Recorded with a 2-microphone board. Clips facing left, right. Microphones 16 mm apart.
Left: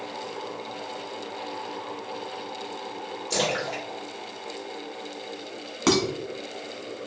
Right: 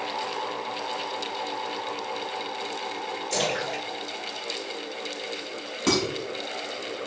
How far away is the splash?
About 1.9 m.